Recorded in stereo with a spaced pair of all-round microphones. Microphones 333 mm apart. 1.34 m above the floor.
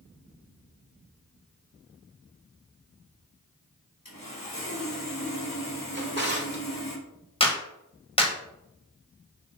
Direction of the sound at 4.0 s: 75° left (ahead or behind).